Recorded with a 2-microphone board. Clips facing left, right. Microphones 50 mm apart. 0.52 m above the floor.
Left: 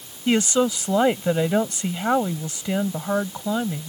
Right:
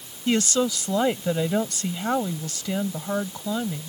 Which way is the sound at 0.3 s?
25° left (ahead or behind).